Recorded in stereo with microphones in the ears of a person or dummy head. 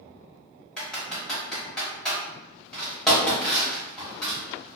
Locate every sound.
0.8 s typing on a keyboard: 5° left (ahead or behind), 1.3 m